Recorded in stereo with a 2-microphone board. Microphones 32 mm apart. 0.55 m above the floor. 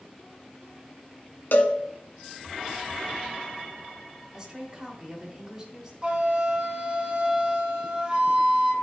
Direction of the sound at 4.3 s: 25° right (ahead or behind).